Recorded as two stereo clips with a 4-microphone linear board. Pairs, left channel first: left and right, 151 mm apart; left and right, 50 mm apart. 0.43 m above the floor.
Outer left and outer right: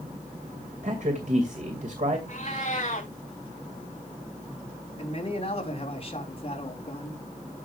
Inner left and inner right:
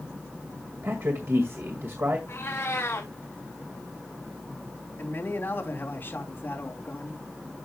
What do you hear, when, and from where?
0.8 s a man speaking: 55° right (ahead or behind), 2 m
2.3 s a cat meowing: 50° left (ahead or behind), 3 m
5.0 s a man speaking: 40° left (ahead or behind), 3.5 m